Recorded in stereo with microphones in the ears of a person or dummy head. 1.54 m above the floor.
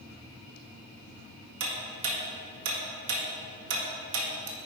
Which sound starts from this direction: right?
Ticking, at 1.6 s.